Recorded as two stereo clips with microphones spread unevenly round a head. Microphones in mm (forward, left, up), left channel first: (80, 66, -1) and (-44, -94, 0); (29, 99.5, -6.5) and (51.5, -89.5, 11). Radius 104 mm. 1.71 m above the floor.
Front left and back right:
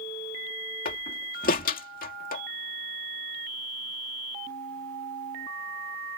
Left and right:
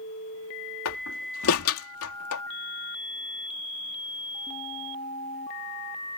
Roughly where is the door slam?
Left.